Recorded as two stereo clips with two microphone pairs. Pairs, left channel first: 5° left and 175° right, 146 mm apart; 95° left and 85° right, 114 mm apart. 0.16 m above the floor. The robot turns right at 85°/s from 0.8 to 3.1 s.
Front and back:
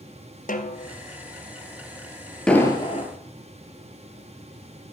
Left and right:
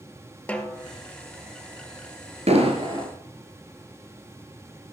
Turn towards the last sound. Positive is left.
turn(degrees=-25)